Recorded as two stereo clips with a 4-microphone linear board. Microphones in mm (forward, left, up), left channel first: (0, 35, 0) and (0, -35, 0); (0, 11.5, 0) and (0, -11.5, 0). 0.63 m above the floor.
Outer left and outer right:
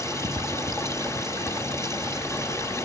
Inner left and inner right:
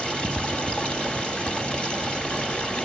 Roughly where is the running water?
Left.